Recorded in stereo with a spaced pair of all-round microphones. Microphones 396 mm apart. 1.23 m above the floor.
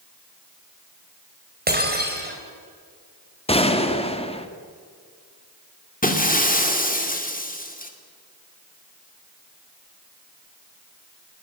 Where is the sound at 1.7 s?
25° right (ahead or behind), 4 m.